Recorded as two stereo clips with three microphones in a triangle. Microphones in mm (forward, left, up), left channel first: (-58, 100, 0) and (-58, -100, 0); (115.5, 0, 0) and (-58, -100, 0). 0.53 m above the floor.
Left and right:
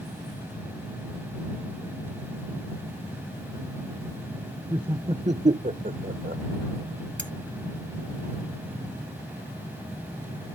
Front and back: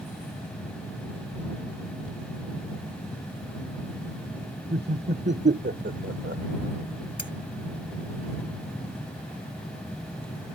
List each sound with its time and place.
4.7 s laughter: 155° right; by 6.4 s 130° right
7.2 s cutlery clinking: 115° right